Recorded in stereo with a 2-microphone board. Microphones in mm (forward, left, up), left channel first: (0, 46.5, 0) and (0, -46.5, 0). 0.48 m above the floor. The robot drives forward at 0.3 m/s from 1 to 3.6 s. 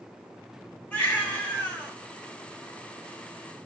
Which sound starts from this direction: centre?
A baby crying, at 0.9 s.